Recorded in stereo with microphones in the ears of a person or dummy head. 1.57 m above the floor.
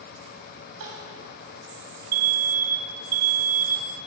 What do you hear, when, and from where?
0.8 s crying: 75° right (ahead or behind), 4 m
2.1 s an alarm: 45° right (ahead or behind), 0.6 m